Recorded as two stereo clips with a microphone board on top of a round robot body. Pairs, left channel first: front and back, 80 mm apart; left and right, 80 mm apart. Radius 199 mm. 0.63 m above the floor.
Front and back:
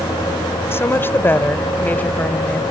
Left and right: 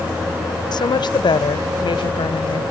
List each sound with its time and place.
0.7 s a woman speaking: 60° left; by 2.6 s 75° left